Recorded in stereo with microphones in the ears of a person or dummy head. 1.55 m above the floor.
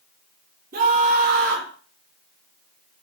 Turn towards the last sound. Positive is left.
turn(degrees=-55)  # may be behind; listen again after turning